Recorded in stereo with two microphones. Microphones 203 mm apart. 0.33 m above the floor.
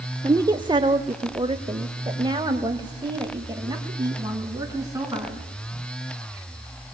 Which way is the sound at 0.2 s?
15° right (ahead or behind).